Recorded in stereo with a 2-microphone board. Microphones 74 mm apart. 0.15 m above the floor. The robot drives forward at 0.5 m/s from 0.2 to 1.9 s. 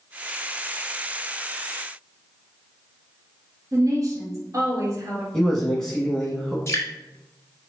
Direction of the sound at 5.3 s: 10° left (ahead or behind).